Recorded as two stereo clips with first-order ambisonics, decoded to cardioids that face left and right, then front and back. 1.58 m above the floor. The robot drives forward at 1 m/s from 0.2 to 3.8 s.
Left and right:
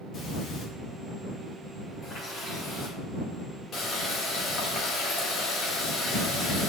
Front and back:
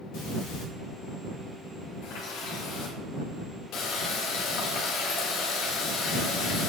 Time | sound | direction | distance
0.1 | breathing | 30° left | 2.5 m
2.0 | a running tap | 20° left | 5 m